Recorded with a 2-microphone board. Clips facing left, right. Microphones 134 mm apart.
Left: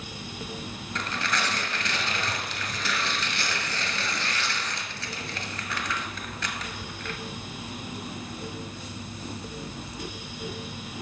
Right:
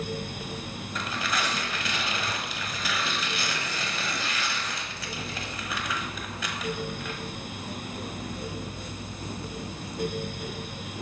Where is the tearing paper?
5° right (ahead or behind), 1.4 m.